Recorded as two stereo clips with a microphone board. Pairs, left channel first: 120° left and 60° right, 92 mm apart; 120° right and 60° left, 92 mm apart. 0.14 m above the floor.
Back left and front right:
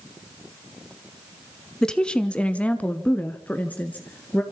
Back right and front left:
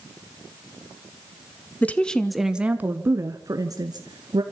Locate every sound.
1.8 s a woman speaking: 165° right, 1.2 m; by 4.4 s 50° left, 1.9 m